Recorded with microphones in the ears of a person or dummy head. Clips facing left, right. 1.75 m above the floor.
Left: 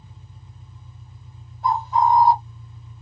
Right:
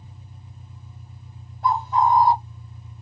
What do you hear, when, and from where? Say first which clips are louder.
0.0 s an engine running: right 1 dB; 10° right (ahead or behind), 1.4 m
1.6 s a bird: left 1 dB; 50° right (ahead or behind), 0.8 m